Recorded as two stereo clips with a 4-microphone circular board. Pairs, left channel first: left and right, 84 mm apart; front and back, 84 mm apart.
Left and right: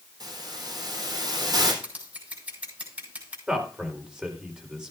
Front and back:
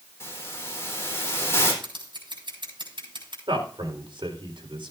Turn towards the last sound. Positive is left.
turn(degrees=-170)